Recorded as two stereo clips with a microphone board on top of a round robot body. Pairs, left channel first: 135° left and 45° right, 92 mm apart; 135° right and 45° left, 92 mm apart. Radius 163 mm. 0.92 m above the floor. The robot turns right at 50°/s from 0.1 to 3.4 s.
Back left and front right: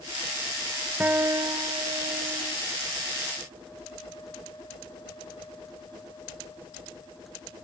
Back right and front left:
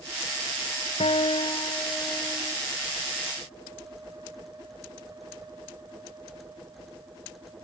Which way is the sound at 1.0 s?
120° right.